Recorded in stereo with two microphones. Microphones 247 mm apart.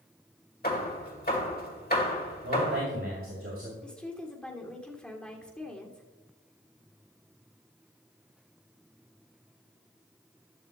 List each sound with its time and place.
0.6 s hammering: 40° left (ahead or behind), 2.0 m
2.4 s a man speaking: 55° right (ahead or behind), 2.5 m
3.8 s a woman speaking: 5° left (ahead or behind), 1.6 m